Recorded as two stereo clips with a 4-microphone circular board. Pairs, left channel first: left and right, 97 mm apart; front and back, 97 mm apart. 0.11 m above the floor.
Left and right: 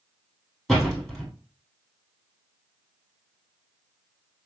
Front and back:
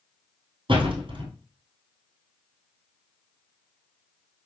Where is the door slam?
Straight behind, 1.5 m.